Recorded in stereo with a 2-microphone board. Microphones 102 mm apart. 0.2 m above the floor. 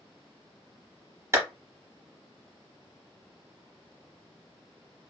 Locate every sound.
1.3 s a clap: 30° right (ahead or behind), 1.0 m